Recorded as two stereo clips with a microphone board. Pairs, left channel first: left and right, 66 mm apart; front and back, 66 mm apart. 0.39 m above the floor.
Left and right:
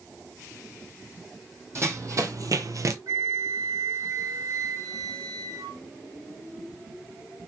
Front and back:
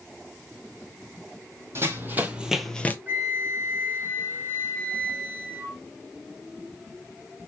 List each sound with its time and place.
1.8 s running footsteps: 130° right, 1.2 m; by 3.0 s 60° right, 0.6 m
3.1 s a flute: 120° right, 0.8 m